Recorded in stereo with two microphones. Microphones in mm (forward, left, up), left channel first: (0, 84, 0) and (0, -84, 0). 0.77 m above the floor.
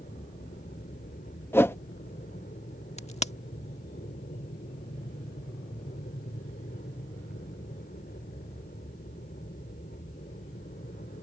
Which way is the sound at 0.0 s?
60° left (ahead or behind).